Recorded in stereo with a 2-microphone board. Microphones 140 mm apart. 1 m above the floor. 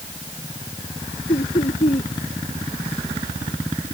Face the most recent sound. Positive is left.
turn(degrees=55)  # may be behind; listen again after turning